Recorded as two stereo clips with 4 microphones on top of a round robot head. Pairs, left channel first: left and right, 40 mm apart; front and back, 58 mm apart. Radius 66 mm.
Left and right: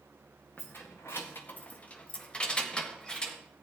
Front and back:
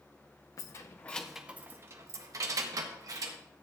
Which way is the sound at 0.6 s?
20° left.